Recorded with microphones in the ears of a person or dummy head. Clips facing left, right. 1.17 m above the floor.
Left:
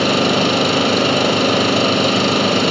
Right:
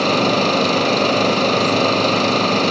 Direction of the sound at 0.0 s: 10° left (ahead or behind).